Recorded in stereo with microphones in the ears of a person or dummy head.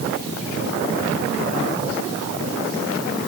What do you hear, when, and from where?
Only background noise.